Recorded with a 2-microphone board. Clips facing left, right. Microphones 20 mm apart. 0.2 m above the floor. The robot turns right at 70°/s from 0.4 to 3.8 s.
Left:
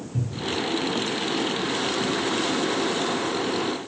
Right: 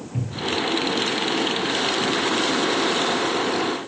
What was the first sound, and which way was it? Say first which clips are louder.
A cupboard door: right 3 dB; 65° right (ahead or behind).